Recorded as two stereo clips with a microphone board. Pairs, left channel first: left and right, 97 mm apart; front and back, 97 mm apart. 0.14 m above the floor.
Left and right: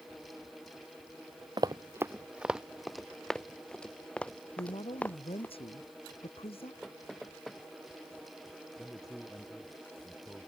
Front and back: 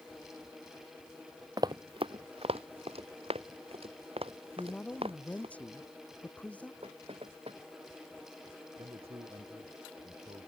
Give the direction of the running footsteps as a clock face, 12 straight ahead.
4 o'clock.